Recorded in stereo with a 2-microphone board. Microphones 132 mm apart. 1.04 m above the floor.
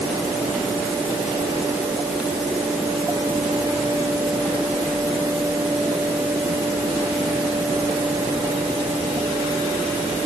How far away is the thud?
I don't hear a thud.